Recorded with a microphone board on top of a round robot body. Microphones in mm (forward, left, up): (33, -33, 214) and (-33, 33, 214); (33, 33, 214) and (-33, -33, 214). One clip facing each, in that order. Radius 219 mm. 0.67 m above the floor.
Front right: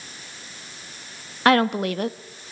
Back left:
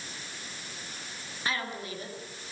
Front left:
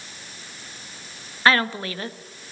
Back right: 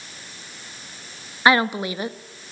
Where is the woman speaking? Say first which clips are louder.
Front right 17 dB, back right 2 dB; 60° right, 1.4 m.